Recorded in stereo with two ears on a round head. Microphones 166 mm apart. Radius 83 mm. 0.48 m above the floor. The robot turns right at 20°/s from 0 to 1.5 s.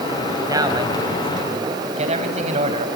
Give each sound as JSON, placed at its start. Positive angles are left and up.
{"t": 0.5, "sound": "a man speaking", "side_deg": -20, "distance_m": 3.5}